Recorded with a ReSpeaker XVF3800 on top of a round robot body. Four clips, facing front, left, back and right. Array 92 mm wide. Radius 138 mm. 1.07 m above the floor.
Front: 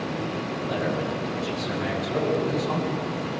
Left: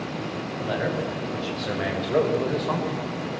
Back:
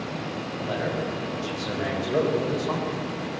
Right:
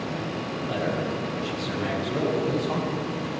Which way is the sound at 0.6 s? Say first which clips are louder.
Left 2 dB, even; 110° left.